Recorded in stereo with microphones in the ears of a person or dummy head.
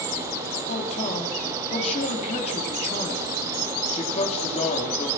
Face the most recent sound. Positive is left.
turn(degrees=35)  # may be behind; listen again after turning